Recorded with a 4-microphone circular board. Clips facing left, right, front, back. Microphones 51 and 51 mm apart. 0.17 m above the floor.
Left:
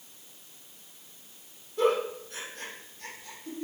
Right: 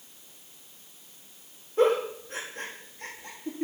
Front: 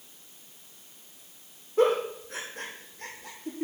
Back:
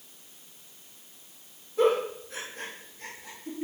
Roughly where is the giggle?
Ahead right.